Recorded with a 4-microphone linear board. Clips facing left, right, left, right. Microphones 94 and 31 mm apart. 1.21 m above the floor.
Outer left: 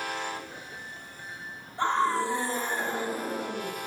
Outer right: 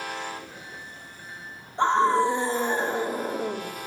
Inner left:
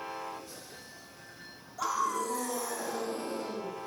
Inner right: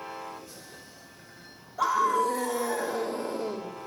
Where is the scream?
25° right (ahead or behind), 3.5 m.